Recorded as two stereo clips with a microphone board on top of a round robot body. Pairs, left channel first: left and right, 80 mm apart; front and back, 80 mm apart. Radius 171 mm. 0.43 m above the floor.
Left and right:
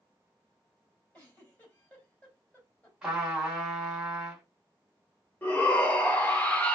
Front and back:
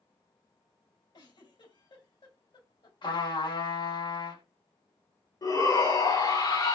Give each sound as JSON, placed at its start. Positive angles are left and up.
{"t": 1.1, "sound": "a giggle", "azimuth_deg": 15, "distance_m": 3.0}
{"t": 3.0, "sound": "a trumpet", "azimuth_deg": -5, "distance_m": 2.5}
{"t": 5.4, "sound": "a shout", "azimuth_deg": 20, "distance_m": 2.0}